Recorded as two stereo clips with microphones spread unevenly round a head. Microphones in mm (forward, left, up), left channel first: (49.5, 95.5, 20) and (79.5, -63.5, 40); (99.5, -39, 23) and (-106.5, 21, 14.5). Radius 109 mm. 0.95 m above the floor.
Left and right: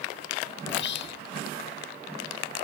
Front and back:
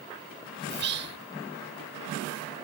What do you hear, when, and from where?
0.7 s whispering: 120° left